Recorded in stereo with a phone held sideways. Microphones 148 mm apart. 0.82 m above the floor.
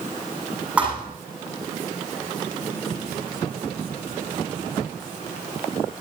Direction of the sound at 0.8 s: 5° right (ahead or behind).